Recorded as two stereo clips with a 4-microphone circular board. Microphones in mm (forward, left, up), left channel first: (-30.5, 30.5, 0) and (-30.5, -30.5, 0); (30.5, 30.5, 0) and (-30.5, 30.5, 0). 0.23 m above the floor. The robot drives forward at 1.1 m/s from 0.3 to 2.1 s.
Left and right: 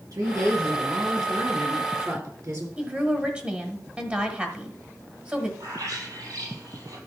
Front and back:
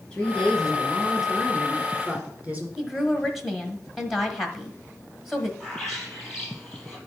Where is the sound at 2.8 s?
105° right, 1.4 m.